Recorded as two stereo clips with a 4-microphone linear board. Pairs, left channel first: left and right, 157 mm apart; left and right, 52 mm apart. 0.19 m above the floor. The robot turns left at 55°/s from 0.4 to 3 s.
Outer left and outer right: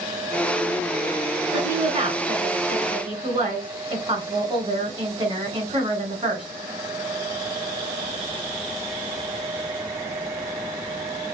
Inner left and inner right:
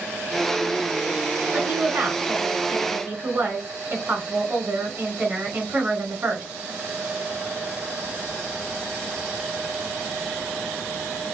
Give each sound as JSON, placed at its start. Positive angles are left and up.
{"t": 1.5, "sound": "a woman speaking", "azimuth_deg": -55, "distance_m": 2.0}